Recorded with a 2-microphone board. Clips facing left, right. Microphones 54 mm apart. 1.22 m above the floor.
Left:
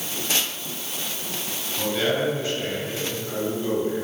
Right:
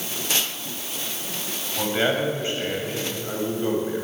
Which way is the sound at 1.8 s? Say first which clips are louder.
Right 1 dB; 30° right (ahead or behind).